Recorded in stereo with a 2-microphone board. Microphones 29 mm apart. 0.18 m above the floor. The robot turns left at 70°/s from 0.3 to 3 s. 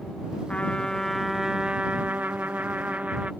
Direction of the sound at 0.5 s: 50° left.